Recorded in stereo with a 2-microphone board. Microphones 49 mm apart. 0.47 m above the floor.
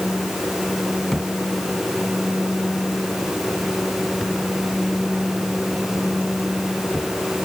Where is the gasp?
I don't hear a gasp.